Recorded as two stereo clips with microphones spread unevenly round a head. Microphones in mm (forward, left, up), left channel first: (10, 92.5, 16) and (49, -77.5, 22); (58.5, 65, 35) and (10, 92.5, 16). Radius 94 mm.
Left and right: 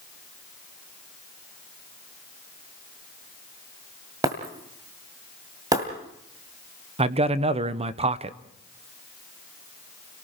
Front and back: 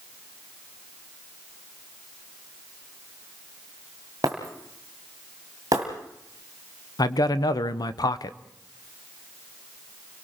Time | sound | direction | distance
4.2 | breaking glass | 140° right | 1.8 m
7.0 | a man speaking | 20° right | 0.9 m